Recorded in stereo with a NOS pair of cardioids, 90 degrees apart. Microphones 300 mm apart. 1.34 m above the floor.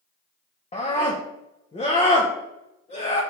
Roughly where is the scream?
Ahead.